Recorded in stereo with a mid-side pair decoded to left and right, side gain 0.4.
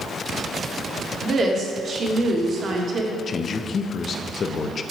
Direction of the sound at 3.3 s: 50° left.